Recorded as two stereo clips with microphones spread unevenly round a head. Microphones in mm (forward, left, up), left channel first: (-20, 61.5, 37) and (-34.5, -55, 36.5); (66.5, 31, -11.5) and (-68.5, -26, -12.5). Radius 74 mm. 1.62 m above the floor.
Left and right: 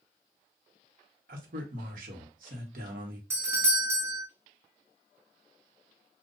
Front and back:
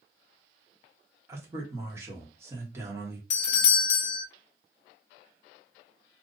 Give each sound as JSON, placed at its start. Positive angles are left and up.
{"t": 1.3, "sound": "a man speaking", "azimuth_deg": -85, "distance_m": 1.2}
{"t": 3.3, "sound": "a doorbell", "azimuth_deg": -25, "distance_m": 0.5}